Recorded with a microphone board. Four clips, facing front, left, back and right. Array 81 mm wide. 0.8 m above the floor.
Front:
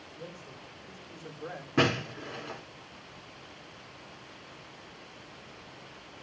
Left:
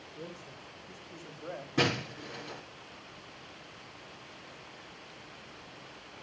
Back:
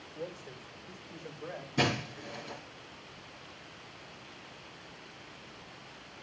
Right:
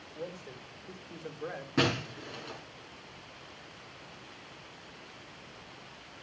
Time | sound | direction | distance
0.1 | a man speaking | 120° right | 2.5 m
1.8 | breaking glass | 20° right | 5 m